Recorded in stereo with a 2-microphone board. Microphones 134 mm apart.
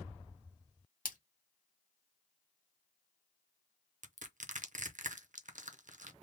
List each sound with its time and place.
1.1 s a splash: 80° left, 0.9 m
4.0 s crushing: 70° right (ahead or behind), 0.7 m